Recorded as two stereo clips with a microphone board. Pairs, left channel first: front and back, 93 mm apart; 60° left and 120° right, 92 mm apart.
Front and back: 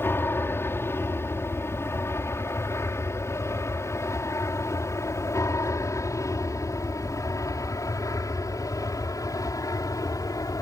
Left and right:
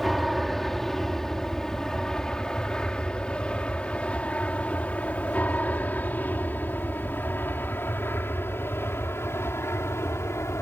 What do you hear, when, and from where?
0.0 s an aircraft: 30° right; by 10.6 s 15° left